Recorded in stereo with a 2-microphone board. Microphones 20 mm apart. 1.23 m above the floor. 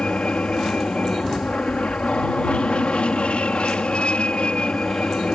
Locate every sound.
0.0 s an aircraft: 60° left (ahead or behind)